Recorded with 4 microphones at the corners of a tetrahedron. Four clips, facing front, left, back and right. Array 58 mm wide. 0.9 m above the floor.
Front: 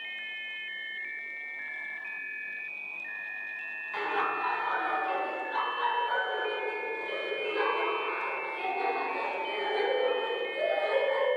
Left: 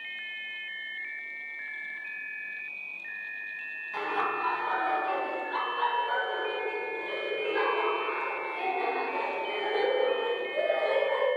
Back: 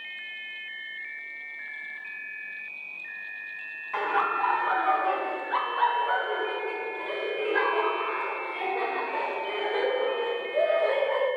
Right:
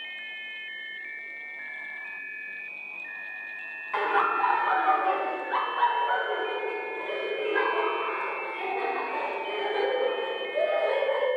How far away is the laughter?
About 1.8 m.